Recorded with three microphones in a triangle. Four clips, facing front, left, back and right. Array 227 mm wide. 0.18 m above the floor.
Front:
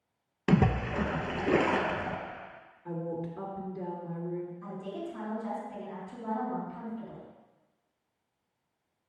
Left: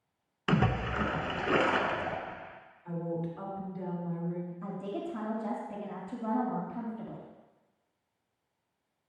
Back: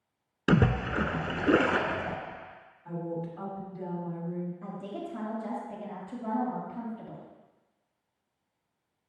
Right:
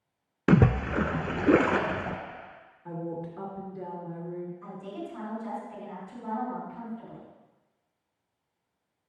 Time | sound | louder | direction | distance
0.5 | a splash | right 6 dB, back 1 dB | 105° right | 0.6 m
2.9 | a woman speaking | even, even | 55° right | 2.5 m
4.6 | a woman speaking | left 2 dB, even | 130° left | 3 m